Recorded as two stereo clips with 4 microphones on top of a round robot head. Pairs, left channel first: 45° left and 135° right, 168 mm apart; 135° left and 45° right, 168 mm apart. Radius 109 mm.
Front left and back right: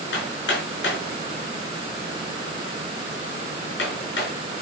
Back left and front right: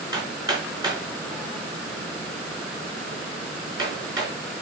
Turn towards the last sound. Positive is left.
turn(degrees=25)